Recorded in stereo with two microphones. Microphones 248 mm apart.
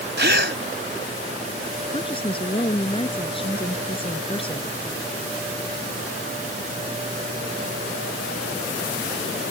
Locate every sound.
0.2 s a gasp: 50° right (ahead or behind)
1.9 s a woman speaking: 20° left (ahead or behind)